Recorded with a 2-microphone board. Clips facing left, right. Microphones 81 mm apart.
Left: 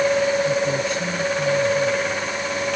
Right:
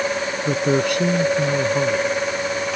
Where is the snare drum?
I don't hear a snare drum.